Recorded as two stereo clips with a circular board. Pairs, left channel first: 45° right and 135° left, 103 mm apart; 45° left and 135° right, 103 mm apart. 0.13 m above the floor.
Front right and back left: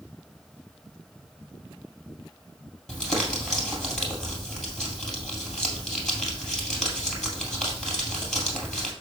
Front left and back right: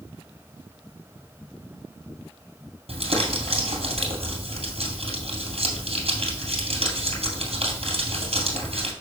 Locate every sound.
2.9 s crumpling: 130° right, 2.5 m